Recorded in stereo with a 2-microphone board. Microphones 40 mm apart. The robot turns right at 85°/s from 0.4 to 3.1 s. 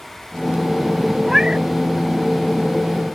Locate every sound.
1.2 s a cat meowing: 170° right; by 1.6 s 135° right